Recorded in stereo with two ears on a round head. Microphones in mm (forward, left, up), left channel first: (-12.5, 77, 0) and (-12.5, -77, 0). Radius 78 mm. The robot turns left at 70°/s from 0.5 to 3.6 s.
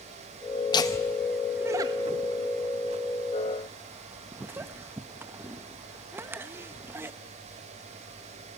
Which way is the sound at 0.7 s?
25° left (ahead or behind).